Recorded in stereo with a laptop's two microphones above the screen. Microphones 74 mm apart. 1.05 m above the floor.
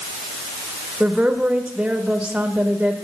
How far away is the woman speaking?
About 1.2 m.